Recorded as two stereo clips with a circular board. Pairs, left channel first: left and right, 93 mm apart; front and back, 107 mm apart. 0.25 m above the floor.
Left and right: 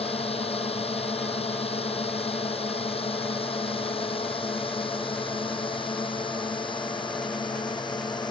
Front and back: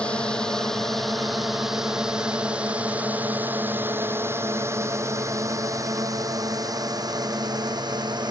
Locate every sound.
0.0 s a drone: 80° left; by 8.3 s 130° left